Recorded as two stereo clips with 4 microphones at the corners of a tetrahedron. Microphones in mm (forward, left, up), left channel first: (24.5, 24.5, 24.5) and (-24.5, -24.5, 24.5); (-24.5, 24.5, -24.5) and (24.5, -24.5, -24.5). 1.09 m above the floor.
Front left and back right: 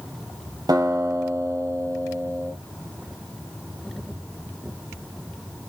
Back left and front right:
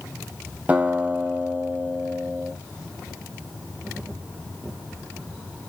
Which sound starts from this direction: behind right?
A guitar, at 0.7 s.